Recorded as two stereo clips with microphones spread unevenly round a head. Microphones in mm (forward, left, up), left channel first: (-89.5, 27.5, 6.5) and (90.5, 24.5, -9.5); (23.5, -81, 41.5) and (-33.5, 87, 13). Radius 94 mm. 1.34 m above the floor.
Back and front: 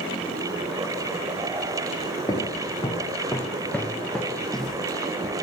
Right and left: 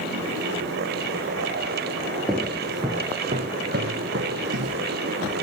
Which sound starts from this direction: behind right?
Footsteps, at 2.3 s.